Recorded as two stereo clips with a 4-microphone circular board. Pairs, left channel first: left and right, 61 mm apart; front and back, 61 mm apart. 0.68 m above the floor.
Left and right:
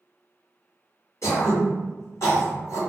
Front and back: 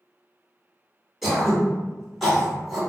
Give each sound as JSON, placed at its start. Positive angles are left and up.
{"t": 1.2, "sound": "throat clearing", "azimuth_deg": 90, "distance_m": 1.7}